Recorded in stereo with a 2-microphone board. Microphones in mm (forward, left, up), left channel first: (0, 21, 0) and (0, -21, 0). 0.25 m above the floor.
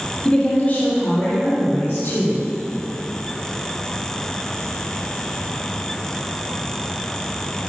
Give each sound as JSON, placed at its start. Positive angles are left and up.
{"t": 0.2, "sound": "a woman speaking", "side_deg": 20, "distance_m": 1.3}